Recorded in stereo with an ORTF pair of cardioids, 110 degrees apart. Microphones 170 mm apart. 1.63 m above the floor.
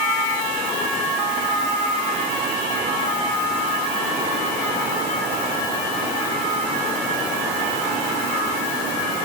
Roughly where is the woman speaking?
No woman speaking in this recording.